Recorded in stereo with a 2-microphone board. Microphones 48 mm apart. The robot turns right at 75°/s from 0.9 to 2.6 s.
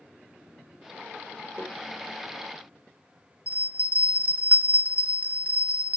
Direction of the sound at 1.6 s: 35° right (ahead or behind).